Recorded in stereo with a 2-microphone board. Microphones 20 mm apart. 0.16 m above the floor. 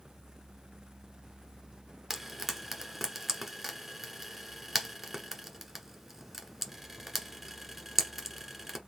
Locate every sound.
2.1 s frying: 5° right (ahead or behind), 1.2 m